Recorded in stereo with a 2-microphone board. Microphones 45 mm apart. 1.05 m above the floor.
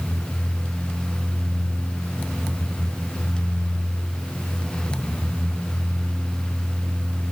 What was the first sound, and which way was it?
Only background noise.